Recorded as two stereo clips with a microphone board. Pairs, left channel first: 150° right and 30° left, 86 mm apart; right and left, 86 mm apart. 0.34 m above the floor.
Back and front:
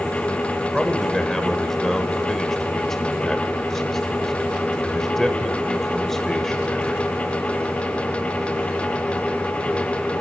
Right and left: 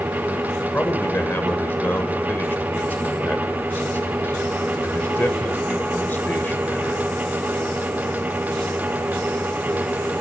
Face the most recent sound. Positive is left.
turn(degrees=-70)